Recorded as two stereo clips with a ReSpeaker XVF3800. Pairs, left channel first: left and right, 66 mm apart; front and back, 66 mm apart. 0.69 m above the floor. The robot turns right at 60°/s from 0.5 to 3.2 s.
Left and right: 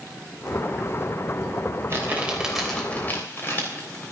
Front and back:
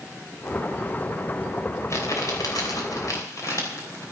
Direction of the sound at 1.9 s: 45° right.